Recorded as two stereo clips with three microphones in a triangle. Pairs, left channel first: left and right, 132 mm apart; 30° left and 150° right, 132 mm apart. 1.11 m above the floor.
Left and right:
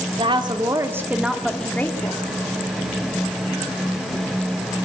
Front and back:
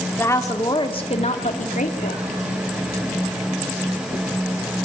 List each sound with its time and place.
0.2 s a woman speaking: 45° right, 2.5 m; by 2.2 s 25° left, 2.5 m